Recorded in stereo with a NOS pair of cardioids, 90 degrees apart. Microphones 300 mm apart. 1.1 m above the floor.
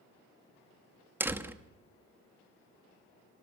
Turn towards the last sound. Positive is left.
turn(degrees=-5)